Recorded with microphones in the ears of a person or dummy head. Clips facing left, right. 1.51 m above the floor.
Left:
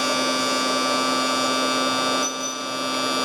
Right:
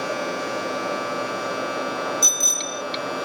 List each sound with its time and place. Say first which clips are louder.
0.0 s a machine running: left 2 dB; 60° left (ahead or behind)
2.2 s a bicycle bell: left 2 dB; 75° right (ahead or behind)